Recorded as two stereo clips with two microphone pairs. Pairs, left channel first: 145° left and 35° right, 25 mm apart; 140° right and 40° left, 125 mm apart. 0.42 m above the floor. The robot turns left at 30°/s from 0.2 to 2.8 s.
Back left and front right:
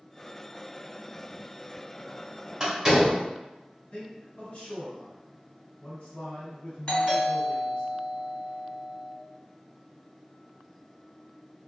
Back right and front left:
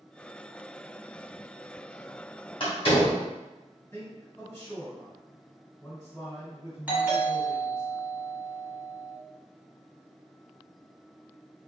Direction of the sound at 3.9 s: 160° left.